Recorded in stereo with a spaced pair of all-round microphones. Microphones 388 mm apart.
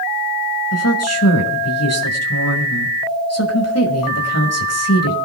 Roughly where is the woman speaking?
Left.